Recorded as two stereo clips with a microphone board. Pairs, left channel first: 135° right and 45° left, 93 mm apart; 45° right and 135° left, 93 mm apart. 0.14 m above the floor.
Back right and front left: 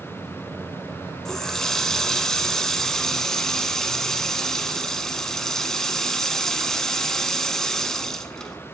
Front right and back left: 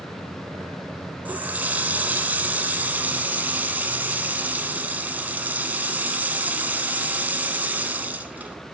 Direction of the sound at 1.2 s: 150° left.